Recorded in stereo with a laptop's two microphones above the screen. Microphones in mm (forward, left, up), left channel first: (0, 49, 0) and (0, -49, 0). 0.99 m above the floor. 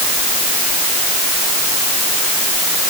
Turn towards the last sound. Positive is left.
No sound to turn to.